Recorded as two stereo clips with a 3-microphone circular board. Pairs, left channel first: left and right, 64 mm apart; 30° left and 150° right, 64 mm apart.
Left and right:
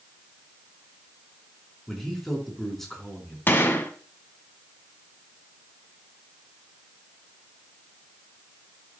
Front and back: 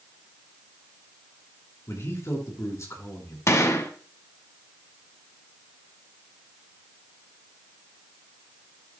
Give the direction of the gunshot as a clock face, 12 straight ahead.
10 o'clock.